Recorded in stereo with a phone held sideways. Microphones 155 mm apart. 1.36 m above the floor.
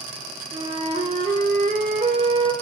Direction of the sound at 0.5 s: 45° right (ahead or behind).